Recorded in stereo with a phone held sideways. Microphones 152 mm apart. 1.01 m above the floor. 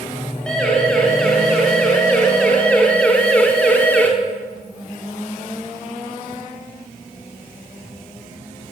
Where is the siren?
5° left (ahead or behind), 9 m; by 4.1 s 10° left (ahead or behind), 3.5 m.